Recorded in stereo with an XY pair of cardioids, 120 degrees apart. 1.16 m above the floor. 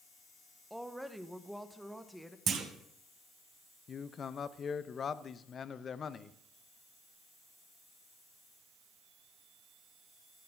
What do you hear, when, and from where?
0.7 s a woman speaking: straight ahead, 0.8 m
2.5 s a clunk: 45° right, 1.3 m
3.9 s a man speaking: 40° left, 0.6 m